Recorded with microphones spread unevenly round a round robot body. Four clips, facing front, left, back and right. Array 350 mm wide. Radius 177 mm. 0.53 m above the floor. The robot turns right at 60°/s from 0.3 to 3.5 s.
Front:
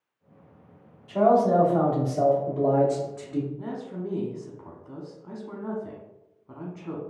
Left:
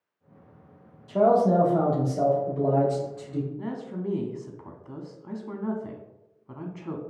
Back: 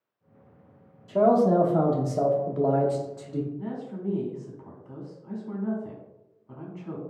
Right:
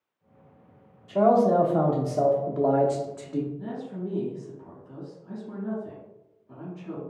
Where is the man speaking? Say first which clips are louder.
Even, even; 135° left, 1.0 m; by 3.5 s 80° right, 1.0 m.